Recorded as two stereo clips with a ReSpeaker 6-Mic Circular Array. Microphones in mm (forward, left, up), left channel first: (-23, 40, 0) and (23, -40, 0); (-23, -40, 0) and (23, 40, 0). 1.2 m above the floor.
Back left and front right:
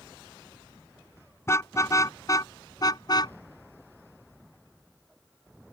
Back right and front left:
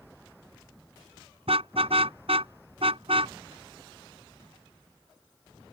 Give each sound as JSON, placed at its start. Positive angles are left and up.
{"t": 1.5, "sound": "a car horn", "azimuth_deg": 60}